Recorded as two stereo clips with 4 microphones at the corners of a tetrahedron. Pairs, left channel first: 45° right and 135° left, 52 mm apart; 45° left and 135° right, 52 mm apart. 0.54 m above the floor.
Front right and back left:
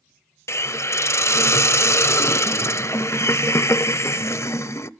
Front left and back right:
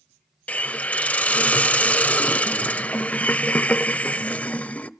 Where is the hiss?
15° right, 0.5 m.